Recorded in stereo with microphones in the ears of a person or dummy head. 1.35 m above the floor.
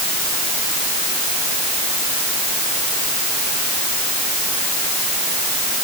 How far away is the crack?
I don't hear a crack.